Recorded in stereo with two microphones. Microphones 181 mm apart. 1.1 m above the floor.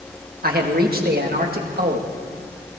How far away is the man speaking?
About 1.7 m.